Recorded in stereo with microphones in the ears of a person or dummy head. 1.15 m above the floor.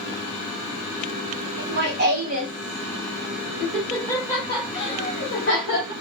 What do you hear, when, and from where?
1.6 s laughter: 60° right (ahead or behind), 1.3 m; by 5.9 s 40° left (ahead or behind), 1.9 m